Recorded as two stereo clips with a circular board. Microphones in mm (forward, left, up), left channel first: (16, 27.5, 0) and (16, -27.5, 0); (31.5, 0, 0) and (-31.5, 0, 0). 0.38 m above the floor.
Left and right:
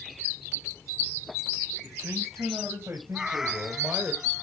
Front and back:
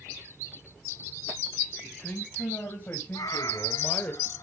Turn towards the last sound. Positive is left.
turn(degrees=-10)